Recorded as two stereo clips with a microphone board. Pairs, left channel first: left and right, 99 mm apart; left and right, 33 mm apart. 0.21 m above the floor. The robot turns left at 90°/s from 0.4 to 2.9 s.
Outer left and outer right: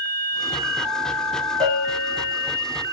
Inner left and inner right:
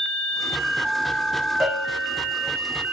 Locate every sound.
1.6 s a bell: 65° right, 6.5 m; by 2.5 s 145° right, 6.5 m